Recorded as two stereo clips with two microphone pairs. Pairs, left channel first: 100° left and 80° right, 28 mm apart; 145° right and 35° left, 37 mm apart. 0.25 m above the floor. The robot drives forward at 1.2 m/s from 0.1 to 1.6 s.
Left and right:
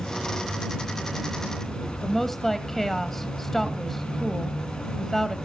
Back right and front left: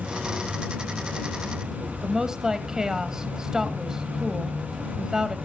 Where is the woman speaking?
60° left, 1.4 m.